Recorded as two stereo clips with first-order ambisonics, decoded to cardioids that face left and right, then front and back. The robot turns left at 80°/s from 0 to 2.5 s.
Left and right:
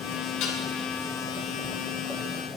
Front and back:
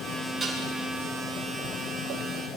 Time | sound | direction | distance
0.4 | dishes clattering | 105° left | 3 m